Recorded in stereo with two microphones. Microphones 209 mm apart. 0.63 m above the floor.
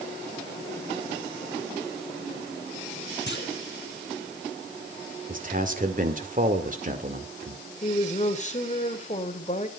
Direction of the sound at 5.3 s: 40° right (ahead or behind).